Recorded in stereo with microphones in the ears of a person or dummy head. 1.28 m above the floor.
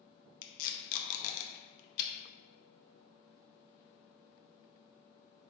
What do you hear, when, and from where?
0.4 s tape being pulled: 45° left (ahead or behind), 0.8 m